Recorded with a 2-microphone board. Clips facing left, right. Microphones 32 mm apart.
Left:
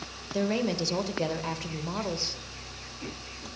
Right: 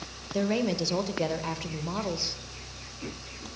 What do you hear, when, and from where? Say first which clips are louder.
0.3 s a woman speaking: right 1 dB; centre (ahead or behind), 1.1 m